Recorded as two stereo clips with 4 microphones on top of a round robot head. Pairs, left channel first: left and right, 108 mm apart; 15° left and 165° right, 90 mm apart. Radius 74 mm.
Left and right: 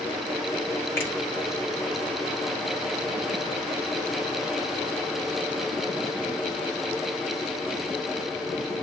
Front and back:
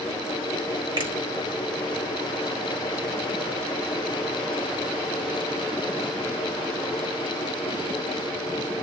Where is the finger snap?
160° left, 3 m.